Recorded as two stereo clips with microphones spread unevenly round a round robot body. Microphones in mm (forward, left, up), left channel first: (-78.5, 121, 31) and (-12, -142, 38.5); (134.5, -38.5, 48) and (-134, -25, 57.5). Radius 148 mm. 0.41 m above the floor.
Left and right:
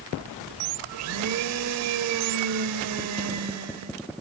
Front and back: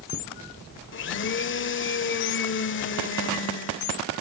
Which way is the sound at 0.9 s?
45° right.